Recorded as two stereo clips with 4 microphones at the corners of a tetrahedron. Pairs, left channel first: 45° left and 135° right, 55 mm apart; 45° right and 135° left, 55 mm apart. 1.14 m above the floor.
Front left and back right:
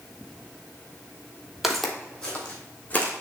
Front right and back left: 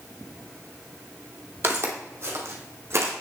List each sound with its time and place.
1.6 s footsteps: 140° left, 1.4 m; by 3.1 s 105° left, 3 m